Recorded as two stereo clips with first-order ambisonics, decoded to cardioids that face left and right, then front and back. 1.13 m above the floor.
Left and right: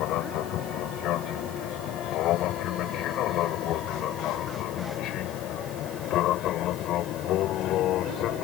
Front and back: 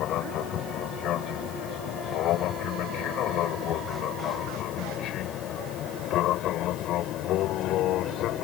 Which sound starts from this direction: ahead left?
An aircraft, at 0.0 s.